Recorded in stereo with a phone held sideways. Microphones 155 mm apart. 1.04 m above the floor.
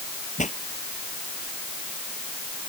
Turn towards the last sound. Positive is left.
turn(degrees=50)  # may be behind; listen again after turning